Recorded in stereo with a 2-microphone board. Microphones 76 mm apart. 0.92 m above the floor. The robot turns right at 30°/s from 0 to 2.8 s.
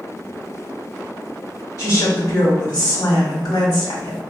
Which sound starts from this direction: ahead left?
A woman speaking, at 1.8 s.